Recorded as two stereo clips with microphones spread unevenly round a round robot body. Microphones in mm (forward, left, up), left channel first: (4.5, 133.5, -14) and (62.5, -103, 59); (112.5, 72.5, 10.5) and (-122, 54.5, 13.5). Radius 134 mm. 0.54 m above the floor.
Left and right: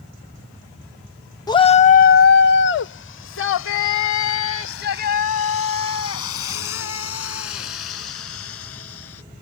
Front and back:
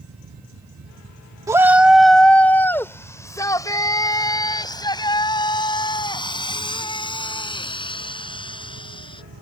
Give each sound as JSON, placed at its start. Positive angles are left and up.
{"t": 1.5, "sound": "a shout", "azimuth_deg": 115}